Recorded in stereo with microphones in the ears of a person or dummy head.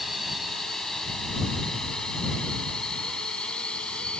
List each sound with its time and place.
0.0 s a drone: centre (ahead or behind); by 4.2 s 10° left (ahead or behind)